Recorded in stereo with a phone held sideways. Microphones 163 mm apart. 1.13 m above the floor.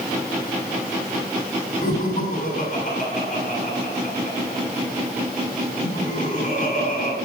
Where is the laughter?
50° left (ahead or behind), 9 m.